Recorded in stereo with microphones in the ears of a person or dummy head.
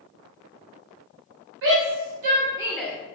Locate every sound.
1.6 s a shout: 60° right (ahead or behind), 1.0 m; by 2.9 s 15° left (ahead or behind), 0.7 m